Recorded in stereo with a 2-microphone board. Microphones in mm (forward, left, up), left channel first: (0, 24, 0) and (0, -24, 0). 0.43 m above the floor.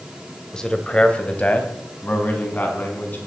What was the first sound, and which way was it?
A man speaking, 15° left (ahead or behind).